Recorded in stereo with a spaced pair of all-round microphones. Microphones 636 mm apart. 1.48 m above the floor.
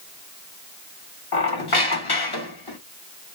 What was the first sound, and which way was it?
A squeak, 35° left (ahead or behind).